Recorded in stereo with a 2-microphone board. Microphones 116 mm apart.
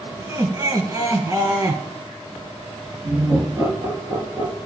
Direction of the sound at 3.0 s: 25° right (ahead or behind).